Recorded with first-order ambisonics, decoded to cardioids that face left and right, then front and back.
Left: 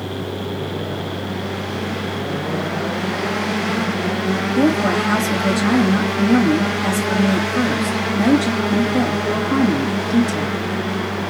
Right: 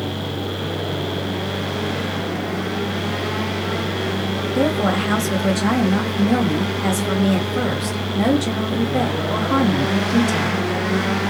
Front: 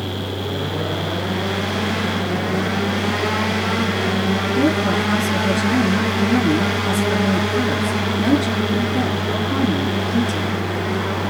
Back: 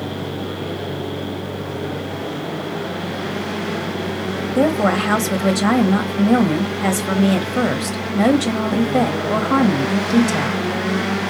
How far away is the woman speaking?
About 1.3 m.